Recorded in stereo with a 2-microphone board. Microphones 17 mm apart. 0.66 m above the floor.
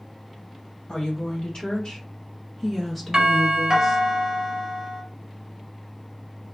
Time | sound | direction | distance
0.9 | a woman speaking | 60° left (ahead or behind) | 1.9 m
3.1 | a doorbell | 35° right (ahead or behind) | 1.1 m